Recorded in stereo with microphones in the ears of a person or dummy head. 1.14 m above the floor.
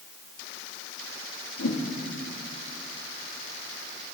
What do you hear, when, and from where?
1.6 s a whoosh: 70° left (ahead or behind), 1.4 m